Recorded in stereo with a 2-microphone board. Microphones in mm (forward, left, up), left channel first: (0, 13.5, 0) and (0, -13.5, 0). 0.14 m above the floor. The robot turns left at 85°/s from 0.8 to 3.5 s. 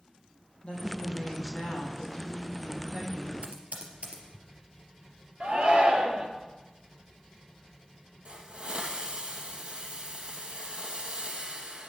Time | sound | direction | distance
0.6 | a woman speaking | 140° left | 5.5 m
3.4 | typing on a keyboard | 60° right (ahead or behind) | 3 m
5.4 | a shout | 45° right (ahead or behind) | 3 m
8.2 | a hiss | 50° right (ahead or behind) | 2 m